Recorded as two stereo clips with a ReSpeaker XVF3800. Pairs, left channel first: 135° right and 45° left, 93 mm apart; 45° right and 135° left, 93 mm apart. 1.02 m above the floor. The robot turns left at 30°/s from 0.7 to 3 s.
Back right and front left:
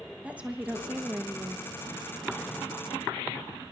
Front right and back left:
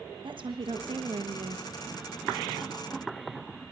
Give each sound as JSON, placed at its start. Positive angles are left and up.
{"t": 0.2, "sound": "a woman speaking", "azimuth_deg": 120, "distance_m": 1.1}